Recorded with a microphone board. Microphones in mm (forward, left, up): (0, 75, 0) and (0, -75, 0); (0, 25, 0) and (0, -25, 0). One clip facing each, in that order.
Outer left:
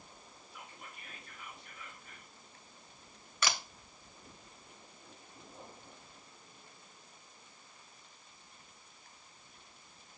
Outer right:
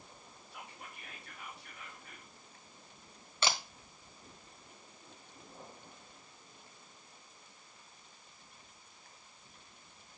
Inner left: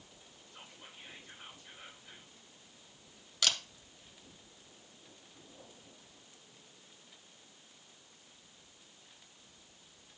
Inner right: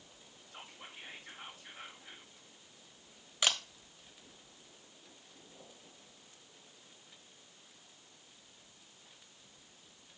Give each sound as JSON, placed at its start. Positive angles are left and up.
{"t": 0.5, "sound": "whispering", "side_deg": -70, "distance_m": 2.5}
{"t": 3.4, "sound": "a camera shutter", "side_deg": -25, "distance_m": 1.1}